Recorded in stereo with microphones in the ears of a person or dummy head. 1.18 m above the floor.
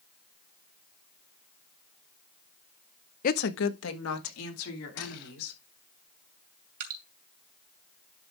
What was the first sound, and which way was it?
A woman speaking, 40° left (ahead or behind).